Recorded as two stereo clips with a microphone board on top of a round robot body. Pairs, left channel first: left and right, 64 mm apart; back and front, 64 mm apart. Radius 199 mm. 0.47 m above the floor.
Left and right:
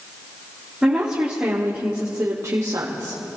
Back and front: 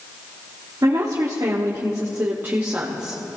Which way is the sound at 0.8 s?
10° right.